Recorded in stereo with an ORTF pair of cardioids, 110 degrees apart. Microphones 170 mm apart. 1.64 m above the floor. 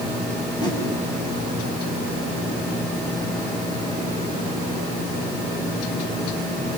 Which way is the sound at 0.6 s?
25° left.